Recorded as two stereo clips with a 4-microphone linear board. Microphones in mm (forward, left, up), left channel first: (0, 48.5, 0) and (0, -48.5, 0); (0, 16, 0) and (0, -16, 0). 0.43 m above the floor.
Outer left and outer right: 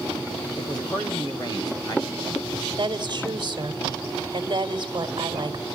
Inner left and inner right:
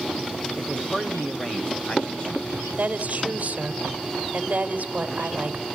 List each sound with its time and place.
0.6 s a man speaking: 40° left (ahead or behind), 2 m
2.8 s a woman speaking: 45° right (ahead or behind), 1.9 m